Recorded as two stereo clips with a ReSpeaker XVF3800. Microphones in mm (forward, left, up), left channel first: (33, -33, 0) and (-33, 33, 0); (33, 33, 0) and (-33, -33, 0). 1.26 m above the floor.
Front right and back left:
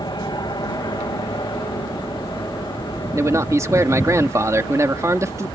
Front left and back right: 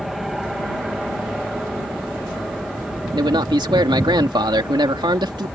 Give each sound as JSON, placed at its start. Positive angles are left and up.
{"t": 0.0, "sound": "an aircraft", "azimuth_deg": -45}
{"t": 3.1, "sound": "a man speaking", "azimuth_deg": -170}